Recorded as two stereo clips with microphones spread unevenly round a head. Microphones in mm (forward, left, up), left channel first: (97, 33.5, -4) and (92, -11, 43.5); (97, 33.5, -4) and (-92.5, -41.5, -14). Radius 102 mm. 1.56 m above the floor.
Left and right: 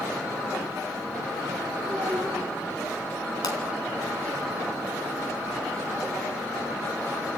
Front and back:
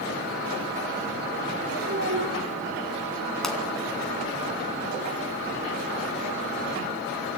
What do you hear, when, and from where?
1.9 s a child speaking: 130° right, 2.5 m
3.4 s a pop: 110° left, 2.5 m